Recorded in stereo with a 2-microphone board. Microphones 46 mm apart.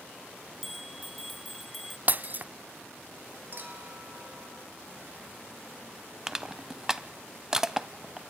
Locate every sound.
0.6 s a bell: centre (ahead or behind), 0.5 m
2.1 s breaking glass: 40° right (ahead or behind), 0.6 m
3.5 s a clink: 45° right (ahead or behind), 3 m
6.3 s crushing: 15° right (ahead or behind), 0.6 m